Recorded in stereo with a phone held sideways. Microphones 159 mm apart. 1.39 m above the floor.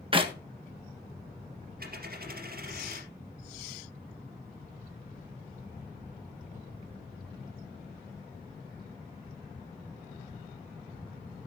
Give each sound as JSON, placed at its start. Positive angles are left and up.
{"t": 0.1, "sound": "a clap", "side_deg": -30, "distance_m": 1.3}
{"t": 1.8, "sound": "a dropped coin", "side_deg": -65, "distance_m": 3.0}